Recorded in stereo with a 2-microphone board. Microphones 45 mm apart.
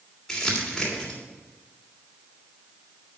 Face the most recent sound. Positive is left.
turn(degrees=10)  # may be behind; listen again after turning